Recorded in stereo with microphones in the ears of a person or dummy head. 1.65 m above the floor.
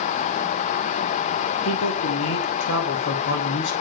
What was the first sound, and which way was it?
A man speaking, 80° left.